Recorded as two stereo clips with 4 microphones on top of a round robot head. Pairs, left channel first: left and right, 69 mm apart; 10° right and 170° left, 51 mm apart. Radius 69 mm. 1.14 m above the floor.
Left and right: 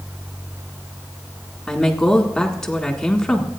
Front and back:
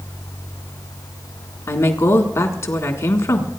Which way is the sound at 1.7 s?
5° left.